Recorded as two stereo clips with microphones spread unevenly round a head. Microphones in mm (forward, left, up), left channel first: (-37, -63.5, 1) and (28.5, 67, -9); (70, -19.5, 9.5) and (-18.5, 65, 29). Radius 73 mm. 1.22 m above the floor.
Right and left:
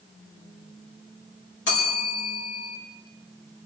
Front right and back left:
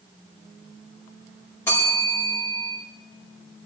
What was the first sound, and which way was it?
A bell, 120° right.